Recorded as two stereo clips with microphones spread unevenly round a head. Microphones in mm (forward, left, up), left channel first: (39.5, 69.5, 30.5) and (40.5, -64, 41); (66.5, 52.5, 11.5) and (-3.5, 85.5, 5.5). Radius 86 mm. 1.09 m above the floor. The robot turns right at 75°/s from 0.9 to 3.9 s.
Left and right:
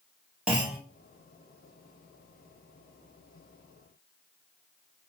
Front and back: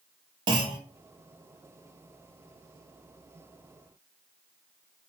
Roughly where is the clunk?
Behind.